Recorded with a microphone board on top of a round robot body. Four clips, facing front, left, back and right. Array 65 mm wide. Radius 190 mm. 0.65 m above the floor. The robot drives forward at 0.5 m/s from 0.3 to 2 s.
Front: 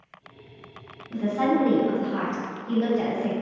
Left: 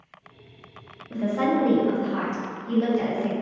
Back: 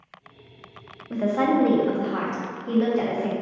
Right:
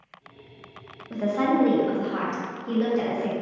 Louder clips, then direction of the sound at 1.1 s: Even, back 2 dB; 170° right.